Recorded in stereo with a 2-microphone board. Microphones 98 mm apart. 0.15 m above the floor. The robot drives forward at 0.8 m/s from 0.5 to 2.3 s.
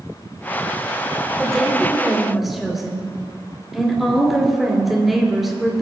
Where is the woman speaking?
Centre (ahead or behind), 3.5 m.